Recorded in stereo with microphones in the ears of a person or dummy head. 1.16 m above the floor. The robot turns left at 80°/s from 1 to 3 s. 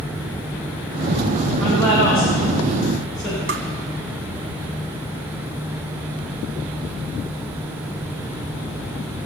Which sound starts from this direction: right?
Tapping, at 3.5 s.